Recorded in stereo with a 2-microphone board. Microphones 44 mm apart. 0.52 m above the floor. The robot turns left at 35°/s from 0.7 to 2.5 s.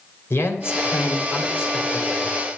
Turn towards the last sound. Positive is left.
turn(degrees=30)